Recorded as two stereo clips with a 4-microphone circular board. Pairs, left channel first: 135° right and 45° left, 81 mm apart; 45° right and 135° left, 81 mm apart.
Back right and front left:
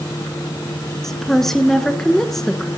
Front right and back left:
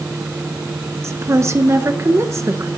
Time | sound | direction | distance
1.0 | a woman speaking | 140° left | 1.4 m